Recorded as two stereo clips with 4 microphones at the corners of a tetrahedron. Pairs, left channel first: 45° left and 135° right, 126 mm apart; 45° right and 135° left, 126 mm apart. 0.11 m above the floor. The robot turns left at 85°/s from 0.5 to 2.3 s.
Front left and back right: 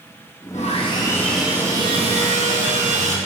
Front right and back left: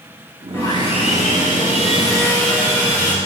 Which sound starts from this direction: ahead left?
Sawing, at 0.5 s.